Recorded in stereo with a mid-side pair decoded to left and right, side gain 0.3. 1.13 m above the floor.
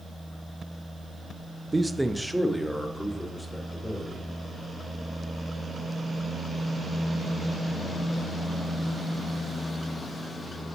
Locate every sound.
1.7 s a man speaking: 25° right, 0.7 m; by 4.2 s 10° left, 4 m